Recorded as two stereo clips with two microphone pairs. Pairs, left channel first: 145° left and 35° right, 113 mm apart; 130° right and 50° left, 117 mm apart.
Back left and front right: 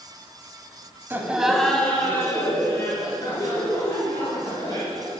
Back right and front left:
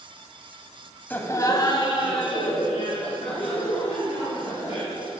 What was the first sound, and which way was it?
Laughter, 80° right.